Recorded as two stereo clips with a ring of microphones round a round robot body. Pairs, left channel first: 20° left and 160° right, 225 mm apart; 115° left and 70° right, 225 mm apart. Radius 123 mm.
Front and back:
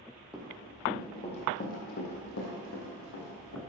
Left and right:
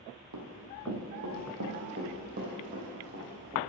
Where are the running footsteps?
70° right, 1.9 m; by 3.6 s 5° right, 3.5 m.